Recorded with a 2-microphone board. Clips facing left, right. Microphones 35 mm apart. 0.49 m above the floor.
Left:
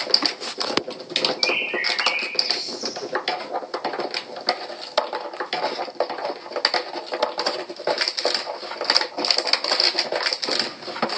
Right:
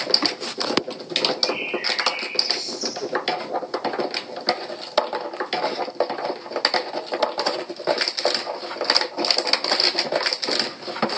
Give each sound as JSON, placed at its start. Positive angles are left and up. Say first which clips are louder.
{"t": 1.4, "sound": "a bird", "louder": "left 2 dB", "side_deg": 50, "distance_m": 8.5}